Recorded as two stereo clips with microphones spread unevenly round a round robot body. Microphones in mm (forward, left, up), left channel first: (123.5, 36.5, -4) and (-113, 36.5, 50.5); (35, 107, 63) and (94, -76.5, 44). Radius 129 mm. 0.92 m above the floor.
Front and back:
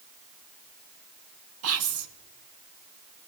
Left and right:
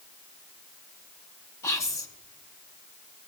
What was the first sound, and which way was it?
Whispering, 175° right.